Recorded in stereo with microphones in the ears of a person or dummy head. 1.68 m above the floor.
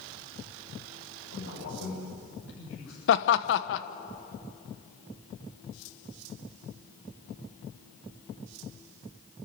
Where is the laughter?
75° left (ahead or behind), 1.3 m.